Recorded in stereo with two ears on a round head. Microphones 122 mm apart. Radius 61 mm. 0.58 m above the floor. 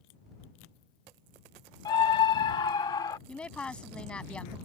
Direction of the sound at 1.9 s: 30° left (ahead or behind).